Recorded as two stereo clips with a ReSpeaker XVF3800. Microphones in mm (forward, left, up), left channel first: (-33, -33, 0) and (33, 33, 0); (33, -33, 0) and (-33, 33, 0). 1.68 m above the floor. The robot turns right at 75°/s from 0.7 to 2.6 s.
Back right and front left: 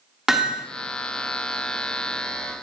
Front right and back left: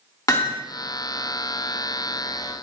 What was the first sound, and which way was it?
Hammering, 40° right.